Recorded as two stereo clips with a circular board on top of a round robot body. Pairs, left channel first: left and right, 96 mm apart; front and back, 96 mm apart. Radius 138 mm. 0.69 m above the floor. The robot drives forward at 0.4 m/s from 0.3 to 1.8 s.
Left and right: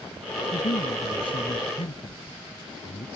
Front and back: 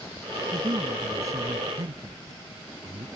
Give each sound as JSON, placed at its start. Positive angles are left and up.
{"t": 0.5, "sound": "a man speaking", "azimuth_deg": 120}